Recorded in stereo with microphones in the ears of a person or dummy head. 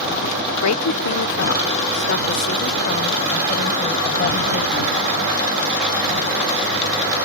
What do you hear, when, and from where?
0.6 s a woman speaking: 85° left; by 5.2 s 35° left (ahead or behind)